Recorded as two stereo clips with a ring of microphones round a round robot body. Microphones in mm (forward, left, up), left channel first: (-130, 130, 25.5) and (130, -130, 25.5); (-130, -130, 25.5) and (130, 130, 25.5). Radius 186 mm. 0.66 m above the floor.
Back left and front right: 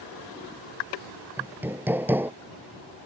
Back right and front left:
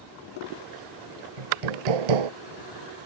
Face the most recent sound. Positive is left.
turn(degrees=40)